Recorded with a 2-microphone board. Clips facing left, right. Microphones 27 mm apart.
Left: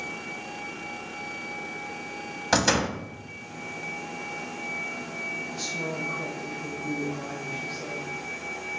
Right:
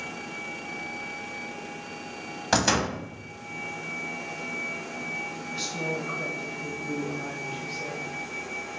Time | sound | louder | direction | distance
2.5 | a door slam | left 1 dB | centre (ahead or behind) | 0.8 m
5.5 | a woman speaking | right 1 dB | 55° right (ahead or behind) | 2 m